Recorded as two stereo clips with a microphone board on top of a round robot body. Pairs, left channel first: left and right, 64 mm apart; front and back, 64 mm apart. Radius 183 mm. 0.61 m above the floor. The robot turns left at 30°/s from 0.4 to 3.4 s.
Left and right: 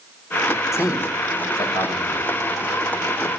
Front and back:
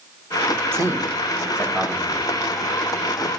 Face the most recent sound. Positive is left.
turn(degrees=50)